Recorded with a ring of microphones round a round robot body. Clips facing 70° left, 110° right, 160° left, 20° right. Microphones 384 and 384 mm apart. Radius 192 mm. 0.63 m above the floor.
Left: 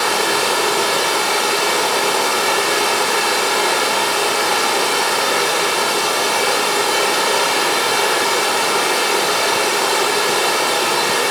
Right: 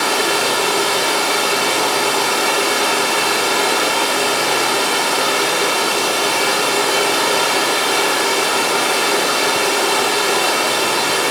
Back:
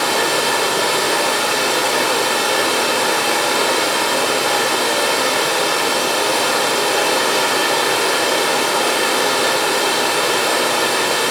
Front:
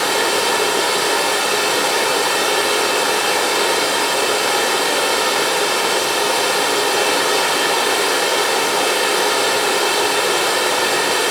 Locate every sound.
0.0 s running water: 130° right, 3.5 m